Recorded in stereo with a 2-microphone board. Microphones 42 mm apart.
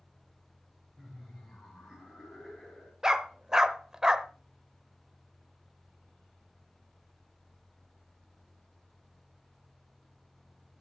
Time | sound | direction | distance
1.0 | laughter | 5° right (ahead or behind) | 4 m
3.0 | a dog barking | 15° right (ahead or behind) | 0.6 m